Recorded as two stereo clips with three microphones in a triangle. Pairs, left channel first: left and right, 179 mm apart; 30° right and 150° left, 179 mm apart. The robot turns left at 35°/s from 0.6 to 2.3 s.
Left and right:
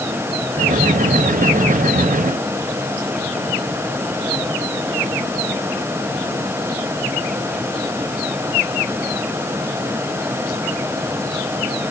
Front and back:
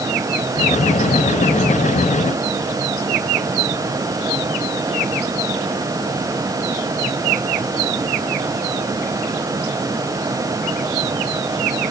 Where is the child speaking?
No child speaking in this recording.